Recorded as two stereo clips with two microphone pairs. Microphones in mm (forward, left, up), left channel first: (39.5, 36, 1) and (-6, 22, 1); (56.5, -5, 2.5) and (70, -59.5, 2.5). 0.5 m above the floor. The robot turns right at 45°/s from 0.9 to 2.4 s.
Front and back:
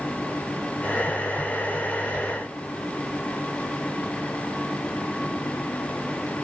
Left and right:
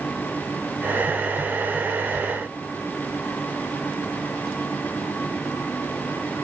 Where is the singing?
No singing in this recording.